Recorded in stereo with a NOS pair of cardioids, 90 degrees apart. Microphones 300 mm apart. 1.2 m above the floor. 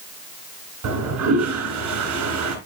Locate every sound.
0.8 s a toilet flushing: 70° right, 3 m